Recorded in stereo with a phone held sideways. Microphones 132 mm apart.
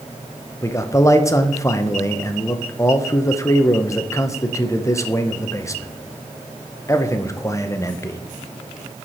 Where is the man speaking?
25° left (ahead or behind), 0.7 m.